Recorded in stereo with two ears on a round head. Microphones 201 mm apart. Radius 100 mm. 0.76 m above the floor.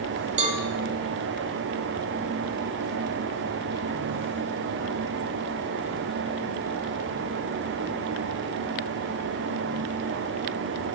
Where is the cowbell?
30° right (ahead or behind), 0.9 m.